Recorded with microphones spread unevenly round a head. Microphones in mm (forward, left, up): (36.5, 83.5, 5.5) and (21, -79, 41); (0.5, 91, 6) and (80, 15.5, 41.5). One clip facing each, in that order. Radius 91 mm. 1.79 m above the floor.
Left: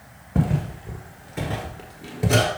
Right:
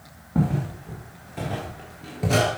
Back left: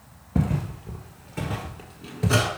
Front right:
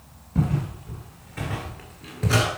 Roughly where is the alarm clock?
I don't hear an alarm clock.